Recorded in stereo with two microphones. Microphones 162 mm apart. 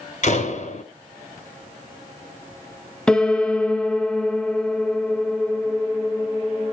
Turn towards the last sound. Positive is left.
turn(degrees=5)  # may be behind; listen again after turning